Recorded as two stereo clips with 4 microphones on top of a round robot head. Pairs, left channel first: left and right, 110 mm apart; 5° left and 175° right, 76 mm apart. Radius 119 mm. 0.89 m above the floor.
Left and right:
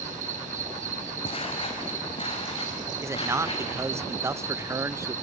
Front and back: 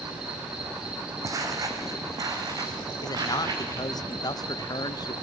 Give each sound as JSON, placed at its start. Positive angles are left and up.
{"t": 0.0, "sound": "an insect", "azimuth_deg": -95, "distance_m": 3.0}
{"t": 1.2, "sound": "footsteps", "azimuth_deg": 140, "distance_m": 2.0}
{"t": 3.0, "sound": "a man speaking", "azimuth_deg": -25, "distance_m": 0.7}